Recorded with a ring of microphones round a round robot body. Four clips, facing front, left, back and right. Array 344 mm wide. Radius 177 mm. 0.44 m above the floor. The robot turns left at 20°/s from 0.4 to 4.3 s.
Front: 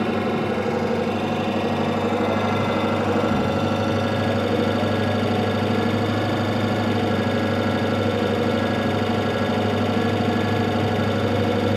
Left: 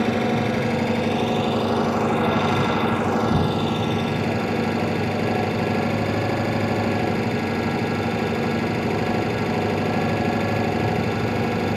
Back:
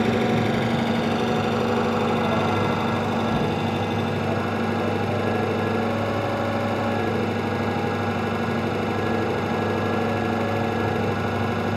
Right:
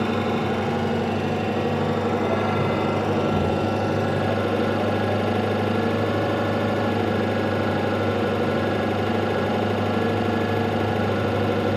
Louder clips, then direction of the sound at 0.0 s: Left 2 dB, back 1 dB; 135° left.